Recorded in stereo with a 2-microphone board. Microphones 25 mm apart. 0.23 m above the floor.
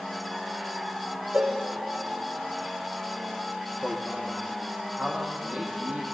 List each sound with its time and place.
1.3 s a cowbell: 60° right (ahead or behind), 5 m
3.8 s a man speaking: 65° right (ahead or behind), 7.5 m